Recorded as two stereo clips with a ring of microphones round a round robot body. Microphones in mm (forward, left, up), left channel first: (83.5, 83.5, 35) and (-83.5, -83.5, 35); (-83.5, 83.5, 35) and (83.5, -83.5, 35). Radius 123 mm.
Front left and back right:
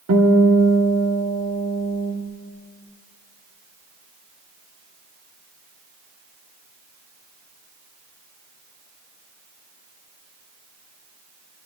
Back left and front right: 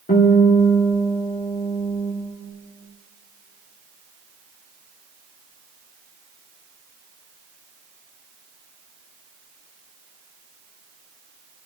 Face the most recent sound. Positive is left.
turn(degrees=-170)